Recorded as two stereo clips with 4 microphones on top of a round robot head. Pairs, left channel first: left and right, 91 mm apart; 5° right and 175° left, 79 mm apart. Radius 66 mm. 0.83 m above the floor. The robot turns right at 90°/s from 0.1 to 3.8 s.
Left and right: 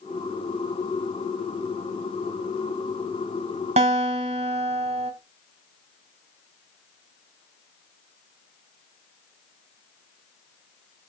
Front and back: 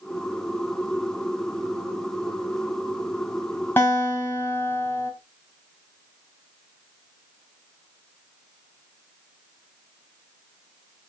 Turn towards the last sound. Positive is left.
turn(degrees=-75)